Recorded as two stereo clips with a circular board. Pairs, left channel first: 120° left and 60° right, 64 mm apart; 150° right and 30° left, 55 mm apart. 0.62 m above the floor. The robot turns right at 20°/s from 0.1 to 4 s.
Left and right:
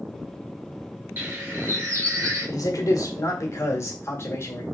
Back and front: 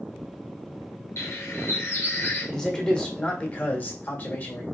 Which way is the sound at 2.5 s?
130° left.